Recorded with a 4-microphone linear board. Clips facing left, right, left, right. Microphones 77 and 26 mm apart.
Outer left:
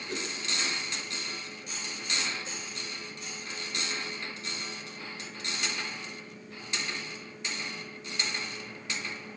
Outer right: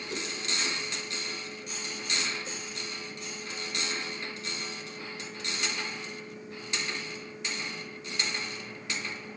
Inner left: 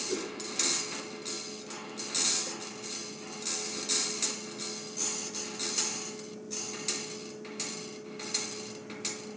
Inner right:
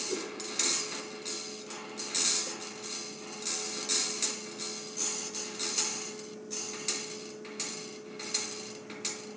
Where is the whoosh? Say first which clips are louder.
Outer left 1 dB, inner left 2 dB; 40° left (ahead or behind), 1.2 m.